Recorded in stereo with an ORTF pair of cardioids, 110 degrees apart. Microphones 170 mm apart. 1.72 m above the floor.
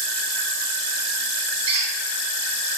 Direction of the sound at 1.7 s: 40° right.